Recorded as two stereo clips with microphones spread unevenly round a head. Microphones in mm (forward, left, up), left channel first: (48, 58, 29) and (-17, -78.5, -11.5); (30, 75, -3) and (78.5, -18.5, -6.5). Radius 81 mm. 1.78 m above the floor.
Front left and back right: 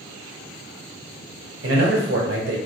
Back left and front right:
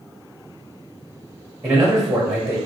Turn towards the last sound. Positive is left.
turn(degrees=-135)